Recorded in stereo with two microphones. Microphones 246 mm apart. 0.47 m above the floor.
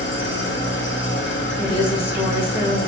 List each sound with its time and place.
0.0 s an engine running: 50° left (ahead or behind), 0.9 m
1.6 s a woman speaking: 35° left (ahead or behind), 1.1 m